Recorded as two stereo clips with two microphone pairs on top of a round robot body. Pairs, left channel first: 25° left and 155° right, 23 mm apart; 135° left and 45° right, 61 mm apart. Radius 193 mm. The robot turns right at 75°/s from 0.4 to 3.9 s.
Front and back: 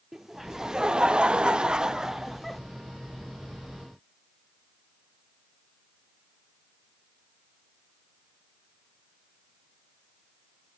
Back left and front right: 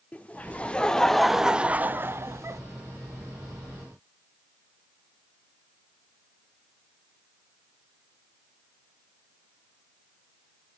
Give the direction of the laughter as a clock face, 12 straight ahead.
7 o'clock.